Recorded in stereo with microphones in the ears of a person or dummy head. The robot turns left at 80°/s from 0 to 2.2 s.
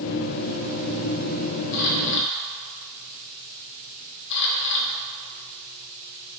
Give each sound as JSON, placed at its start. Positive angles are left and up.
{"t": 1.7, "sound": "a camera shutter", "side_deg": 75, "distance_m": 1.4}